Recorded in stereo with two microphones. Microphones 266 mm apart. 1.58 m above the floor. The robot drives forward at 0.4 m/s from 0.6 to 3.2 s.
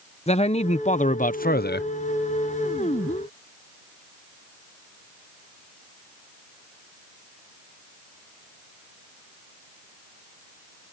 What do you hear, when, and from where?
0.3 s a man speaking: 25° left (ahead or behind); by 1.9 s 40° left (ahead or behind)